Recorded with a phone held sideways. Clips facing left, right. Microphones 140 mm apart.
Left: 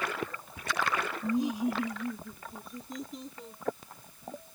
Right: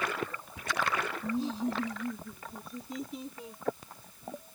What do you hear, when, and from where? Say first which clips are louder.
1.2 s laughter: left 4 dB; 20° left (ahead or behind); by 3.6 s 5° right (ahead or behind)